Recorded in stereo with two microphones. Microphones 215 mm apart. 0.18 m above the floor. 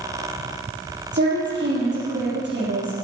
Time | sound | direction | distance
1.1 | a woman speaking | 55° right (ahead or behind) | 5 m